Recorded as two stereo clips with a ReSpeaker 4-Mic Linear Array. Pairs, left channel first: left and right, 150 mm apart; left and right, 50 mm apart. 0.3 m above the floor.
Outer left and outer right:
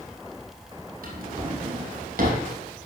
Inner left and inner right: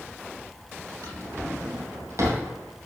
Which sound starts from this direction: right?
A drawer, at 1.0 s.